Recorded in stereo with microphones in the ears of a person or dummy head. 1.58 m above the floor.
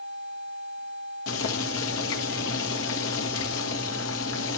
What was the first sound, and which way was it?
Boiling, 75° left (ahead or behind).